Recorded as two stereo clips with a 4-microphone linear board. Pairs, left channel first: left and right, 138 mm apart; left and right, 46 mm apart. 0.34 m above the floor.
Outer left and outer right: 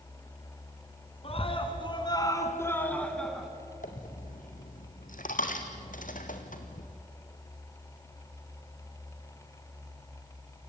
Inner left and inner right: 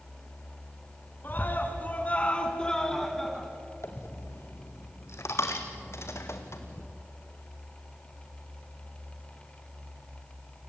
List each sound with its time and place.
1.2 s a scream: 45° left (ahead or behind), 3 m; by 3.5 s centre (ahead or behind), 3 m
3.8 s a dropped coin: 75° left (ahead or behind), 2.5 m